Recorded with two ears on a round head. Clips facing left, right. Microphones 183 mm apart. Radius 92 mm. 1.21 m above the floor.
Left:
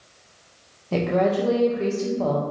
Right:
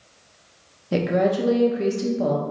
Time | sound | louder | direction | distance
0.9 | a woman speaking | even | 15° right (ahead or behind) | 0.7 m